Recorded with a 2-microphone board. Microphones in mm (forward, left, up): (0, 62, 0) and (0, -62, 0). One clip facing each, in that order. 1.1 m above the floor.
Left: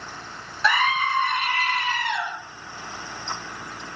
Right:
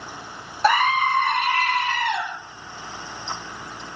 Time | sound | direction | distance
0.6 | a scream | 40° right (ahead or behind) | 0.9 m